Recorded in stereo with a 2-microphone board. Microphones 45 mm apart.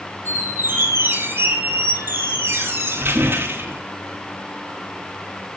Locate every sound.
0.2 s a squeak: 60° right (ahead or behind), 2.5 m